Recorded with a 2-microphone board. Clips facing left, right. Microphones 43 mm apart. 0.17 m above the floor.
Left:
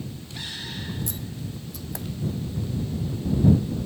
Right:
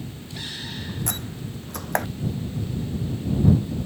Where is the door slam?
60° right (ahead or behind).